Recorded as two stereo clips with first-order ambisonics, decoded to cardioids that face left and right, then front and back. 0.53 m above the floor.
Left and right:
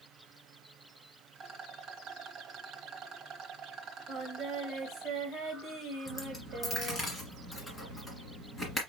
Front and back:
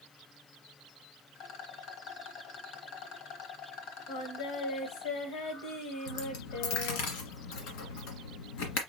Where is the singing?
25° right, 1.9 m.